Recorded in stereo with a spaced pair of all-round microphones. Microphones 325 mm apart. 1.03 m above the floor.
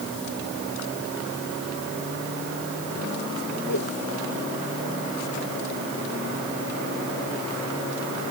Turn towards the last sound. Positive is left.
turn(degrees=60)  # may be behind; listen again after turning